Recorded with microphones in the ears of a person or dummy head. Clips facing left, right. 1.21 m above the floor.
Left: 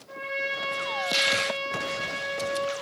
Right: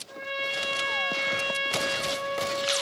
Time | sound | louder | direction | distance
0.1 | a trumpet | left 1 dB | 15° left (ahead or behind) | 0.5 m